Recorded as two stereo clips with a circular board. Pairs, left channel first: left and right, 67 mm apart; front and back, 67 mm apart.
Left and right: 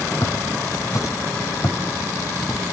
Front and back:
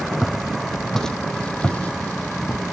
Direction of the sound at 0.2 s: 90° left.